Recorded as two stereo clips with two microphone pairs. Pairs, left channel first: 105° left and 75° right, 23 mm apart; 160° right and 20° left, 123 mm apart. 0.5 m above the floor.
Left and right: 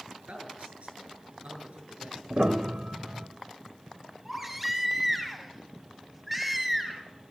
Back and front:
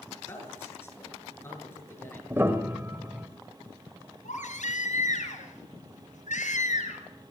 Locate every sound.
0.3 s a man speaking: 85° right, 8 m
2.3 s a piano: 50° right, 1.7 m
4.2 s a baby crying: 155° right, 4.5 m